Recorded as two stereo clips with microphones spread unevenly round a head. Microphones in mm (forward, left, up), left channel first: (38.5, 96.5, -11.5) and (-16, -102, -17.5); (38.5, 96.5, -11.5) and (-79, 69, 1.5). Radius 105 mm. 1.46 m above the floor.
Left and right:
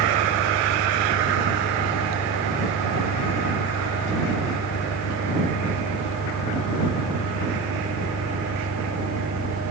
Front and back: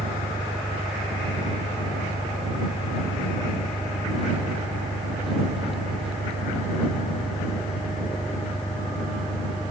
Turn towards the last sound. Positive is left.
turn(degrees=105)